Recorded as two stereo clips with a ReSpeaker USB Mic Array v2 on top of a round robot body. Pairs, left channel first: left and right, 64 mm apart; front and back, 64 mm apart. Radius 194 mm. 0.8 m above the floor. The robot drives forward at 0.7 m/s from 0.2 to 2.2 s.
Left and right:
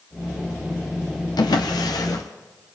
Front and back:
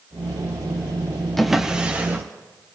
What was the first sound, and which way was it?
A drawer, 90° left.